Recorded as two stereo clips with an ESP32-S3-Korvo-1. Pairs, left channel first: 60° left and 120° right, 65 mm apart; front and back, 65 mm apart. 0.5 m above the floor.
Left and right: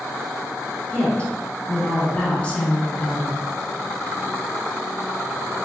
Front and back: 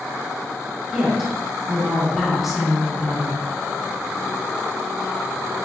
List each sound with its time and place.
0.9 s a woman speaking: 100° left, 0.7 m